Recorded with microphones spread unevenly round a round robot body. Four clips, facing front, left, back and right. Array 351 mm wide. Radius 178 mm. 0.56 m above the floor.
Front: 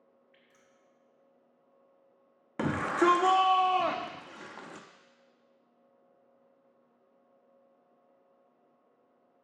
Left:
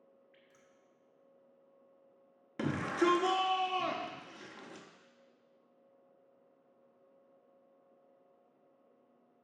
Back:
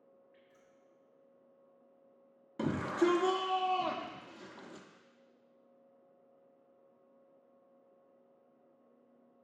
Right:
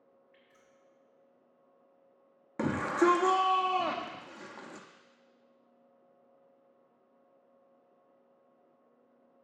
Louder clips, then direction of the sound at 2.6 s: Right 4 dB, front 4 dB; 40° right.